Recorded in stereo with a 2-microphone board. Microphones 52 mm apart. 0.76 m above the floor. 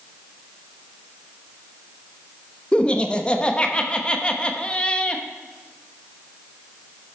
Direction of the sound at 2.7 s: 25° left (ahead or behind).